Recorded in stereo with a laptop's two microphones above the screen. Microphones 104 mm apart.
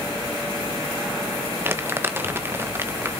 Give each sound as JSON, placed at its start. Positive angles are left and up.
{"t": 1.6, "sound": "crumpling", "side_deg": -20, "distance_m": 1.2}